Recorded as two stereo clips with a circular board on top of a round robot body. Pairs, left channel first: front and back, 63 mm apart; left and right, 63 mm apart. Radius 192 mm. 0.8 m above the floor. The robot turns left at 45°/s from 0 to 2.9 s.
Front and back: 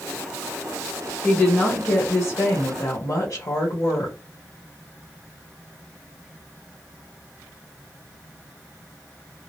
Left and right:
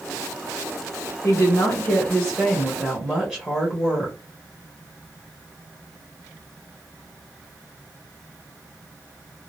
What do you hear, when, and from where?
1.2 s a woman speaking: 80° left, 1.8 m; by 4.2 s 5° left, 1.8 m